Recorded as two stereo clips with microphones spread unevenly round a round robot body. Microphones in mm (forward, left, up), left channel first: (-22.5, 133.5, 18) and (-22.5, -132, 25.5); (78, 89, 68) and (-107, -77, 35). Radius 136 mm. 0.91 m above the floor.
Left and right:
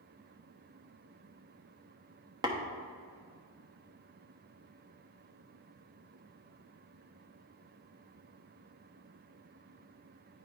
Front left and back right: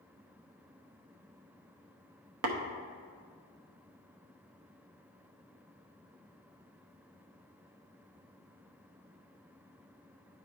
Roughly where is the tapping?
Behind.